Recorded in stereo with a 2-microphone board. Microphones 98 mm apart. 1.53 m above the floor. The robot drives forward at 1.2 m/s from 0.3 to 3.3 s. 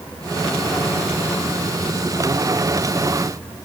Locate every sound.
Only background noise.